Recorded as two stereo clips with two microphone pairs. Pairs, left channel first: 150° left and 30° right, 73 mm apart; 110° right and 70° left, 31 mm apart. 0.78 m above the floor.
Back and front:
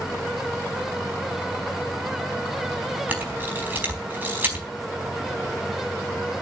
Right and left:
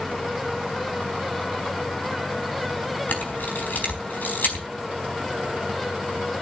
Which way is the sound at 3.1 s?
95° right.